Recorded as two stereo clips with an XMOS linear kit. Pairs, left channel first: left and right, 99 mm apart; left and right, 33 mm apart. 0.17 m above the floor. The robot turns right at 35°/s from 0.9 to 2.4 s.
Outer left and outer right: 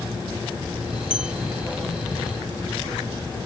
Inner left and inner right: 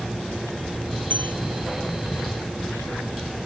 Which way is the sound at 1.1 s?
70° left (ahead or behind).